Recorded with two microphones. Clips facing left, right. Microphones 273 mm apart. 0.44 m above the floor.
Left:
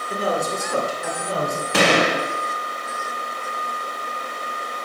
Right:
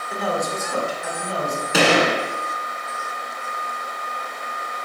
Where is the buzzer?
No buzzer in this recording.